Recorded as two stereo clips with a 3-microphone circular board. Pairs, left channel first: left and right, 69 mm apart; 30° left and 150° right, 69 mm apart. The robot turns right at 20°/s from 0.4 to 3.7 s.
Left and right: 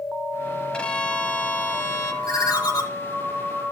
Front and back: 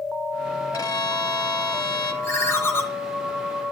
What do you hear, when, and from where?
0.7 s a violin: 15° left, 0.9 m; by 2.1 s 45° left, 0.9 m
2.2 s a ringtone: 70° left, 1.8 m; by 2.8 s 85° left, 1.8 m